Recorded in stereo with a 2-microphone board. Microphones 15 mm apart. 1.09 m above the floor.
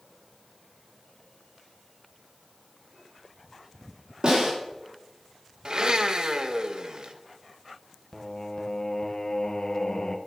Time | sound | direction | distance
4.2 | a snare drum | 60° right (ahead or behind) | 4 m
5.7 | a blender | 55° right (ahead or behind) | 0.7 m
8.1 | singing | 45° left (ahead or behind) | 0.7 m